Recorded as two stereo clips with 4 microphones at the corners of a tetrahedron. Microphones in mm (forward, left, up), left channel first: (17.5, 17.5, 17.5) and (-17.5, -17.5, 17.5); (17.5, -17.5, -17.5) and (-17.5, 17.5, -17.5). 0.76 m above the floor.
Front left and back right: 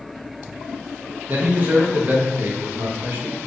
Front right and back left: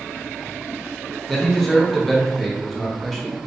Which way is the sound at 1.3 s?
125° right.